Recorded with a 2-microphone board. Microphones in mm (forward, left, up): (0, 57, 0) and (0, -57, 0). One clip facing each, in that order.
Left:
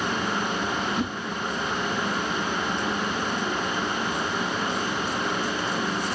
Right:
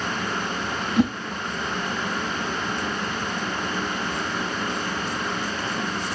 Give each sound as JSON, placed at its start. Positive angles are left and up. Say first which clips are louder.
{"t": 1.0, "sound": "a whoosh", "louder": "right 7 dB", "side_deg": -70, "distance_m": 0.8}